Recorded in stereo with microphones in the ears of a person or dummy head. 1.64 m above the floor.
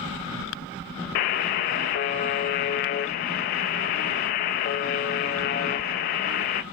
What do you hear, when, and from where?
1.1 s a buzzer: 50° left (ahead or behind), 1.1 m